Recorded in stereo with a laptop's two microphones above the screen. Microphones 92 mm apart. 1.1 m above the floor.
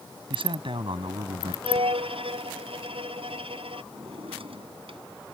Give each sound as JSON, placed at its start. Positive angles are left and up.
{"t": 0.3, "sound": "a man speaking", "side_deg": -70}
{"t": 1.6, "sound": "a violin", "side_deg": -85}
{"t": 3.9, "sound": "a drawer", "side_deg": -85}